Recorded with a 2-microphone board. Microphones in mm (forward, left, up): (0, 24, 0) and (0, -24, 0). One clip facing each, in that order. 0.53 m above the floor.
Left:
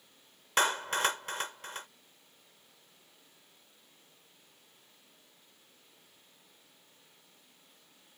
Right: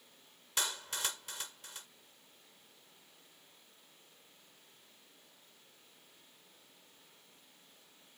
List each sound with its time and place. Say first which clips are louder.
0.6 s a clap: left 11 dB; 50° left (ahead or behind)